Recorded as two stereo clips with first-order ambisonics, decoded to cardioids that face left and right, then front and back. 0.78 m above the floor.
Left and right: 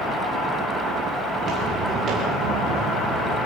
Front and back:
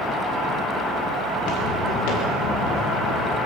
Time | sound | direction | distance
1.4 | footsteps | 25° right | 6 m